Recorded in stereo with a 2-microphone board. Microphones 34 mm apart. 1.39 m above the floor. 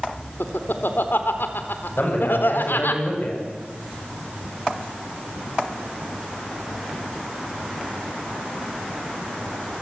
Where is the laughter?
80° left, 4 m.